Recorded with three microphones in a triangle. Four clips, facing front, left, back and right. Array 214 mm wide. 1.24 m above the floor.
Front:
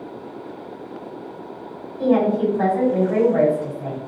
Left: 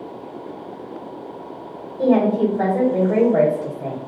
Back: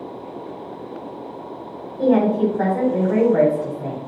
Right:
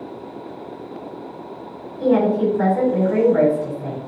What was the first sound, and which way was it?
A woman speaking, 145° left.